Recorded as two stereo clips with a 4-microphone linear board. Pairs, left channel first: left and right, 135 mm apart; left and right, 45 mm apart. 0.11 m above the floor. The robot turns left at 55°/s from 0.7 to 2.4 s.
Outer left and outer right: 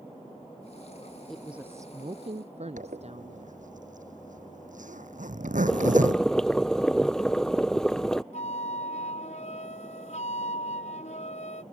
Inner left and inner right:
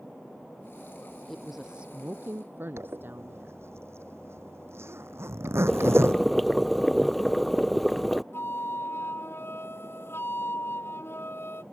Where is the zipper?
70° right (ahead or behind).